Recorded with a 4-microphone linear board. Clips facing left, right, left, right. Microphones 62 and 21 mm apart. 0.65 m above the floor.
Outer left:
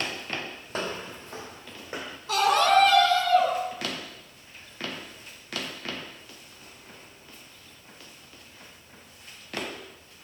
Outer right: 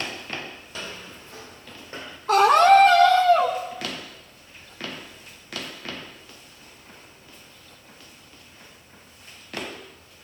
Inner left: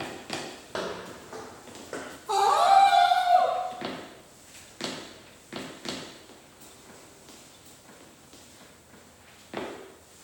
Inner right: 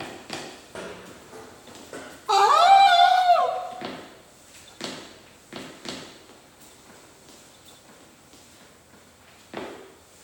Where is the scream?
55° right (ahead or behind), 2 m.